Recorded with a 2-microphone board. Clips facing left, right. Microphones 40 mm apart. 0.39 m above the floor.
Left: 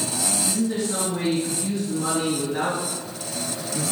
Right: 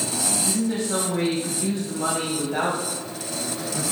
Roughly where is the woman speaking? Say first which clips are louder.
Even; right.